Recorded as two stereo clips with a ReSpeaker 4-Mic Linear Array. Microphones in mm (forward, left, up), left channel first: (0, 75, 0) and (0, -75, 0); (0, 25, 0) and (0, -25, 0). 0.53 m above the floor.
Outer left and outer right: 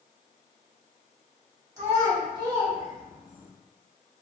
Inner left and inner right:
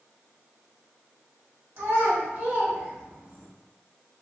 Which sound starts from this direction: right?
A child speaking, at 1.8 s.